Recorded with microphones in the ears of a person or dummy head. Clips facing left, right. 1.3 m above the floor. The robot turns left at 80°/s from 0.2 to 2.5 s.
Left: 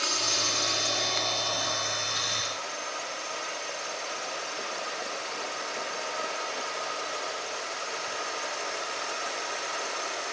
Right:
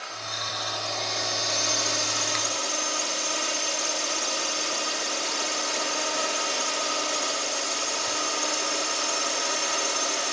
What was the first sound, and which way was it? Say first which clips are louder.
A drone: left 4 dB; 75° left.